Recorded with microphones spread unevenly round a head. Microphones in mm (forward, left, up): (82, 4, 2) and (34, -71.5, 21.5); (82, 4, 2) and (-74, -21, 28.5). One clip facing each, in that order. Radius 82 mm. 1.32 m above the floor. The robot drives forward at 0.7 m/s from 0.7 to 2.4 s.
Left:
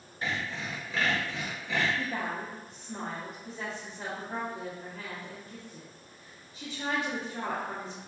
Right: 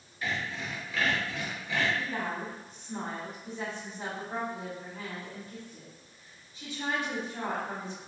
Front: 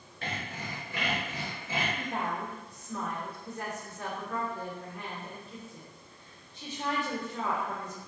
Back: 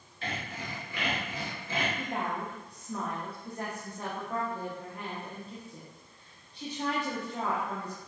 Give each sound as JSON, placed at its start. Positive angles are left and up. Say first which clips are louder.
{"t": 0.2, "sound": "sawing", "louder": "even, even", "azimuth_deg": 10, "distance_m": 1.2}
{"t": 2.0, "sound": "a woman speaking", "louder": "even, even", "azimuth_deg": 100, "distance_m": 0.5}